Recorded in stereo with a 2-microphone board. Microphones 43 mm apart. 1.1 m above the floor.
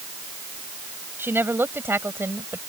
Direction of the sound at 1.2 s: 55° right (ahead or behind).